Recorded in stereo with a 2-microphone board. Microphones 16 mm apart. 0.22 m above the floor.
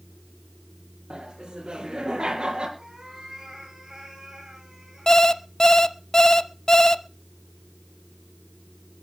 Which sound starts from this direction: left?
An alarm clock, at 5.1 s.